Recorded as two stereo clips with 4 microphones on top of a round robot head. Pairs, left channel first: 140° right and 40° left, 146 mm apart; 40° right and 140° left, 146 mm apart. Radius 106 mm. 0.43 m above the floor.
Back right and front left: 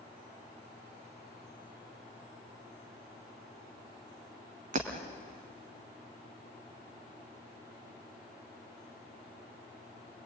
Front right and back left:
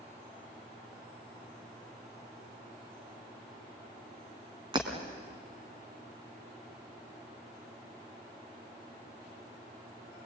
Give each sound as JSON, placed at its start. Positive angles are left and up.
{"t": 4.7, "sound": "breaking glass", "azimuth_deg": 80, "distance_m": 3.0}